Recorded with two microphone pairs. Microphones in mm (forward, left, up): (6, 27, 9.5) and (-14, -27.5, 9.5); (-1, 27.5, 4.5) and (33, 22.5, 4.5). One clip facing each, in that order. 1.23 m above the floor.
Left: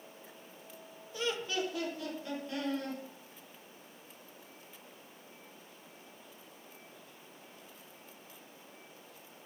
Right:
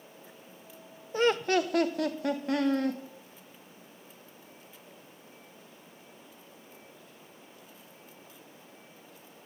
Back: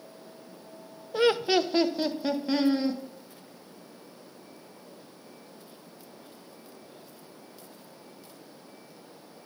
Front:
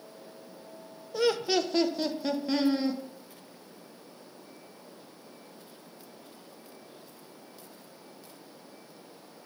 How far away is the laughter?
About 0.6 m.